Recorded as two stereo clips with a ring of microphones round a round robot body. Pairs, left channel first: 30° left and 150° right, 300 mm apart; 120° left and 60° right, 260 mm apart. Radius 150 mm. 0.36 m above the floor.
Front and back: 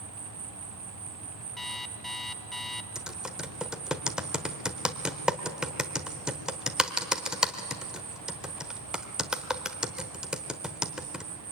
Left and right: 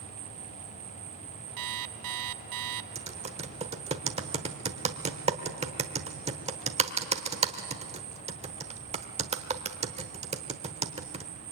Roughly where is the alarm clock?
Ahead right.